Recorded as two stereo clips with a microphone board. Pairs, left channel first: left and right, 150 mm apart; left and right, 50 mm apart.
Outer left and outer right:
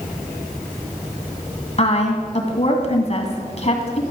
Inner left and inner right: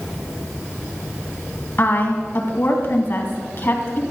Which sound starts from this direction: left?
A woman speaking, at 1.8 s.